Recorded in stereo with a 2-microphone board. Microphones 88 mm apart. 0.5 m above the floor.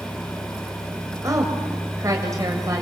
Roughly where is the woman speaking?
Right.